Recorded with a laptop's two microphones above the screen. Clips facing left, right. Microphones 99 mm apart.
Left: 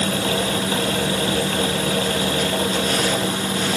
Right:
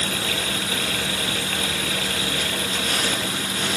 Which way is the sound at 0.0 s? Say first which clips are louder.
Left 6 dB; 35° left (ahead or behind).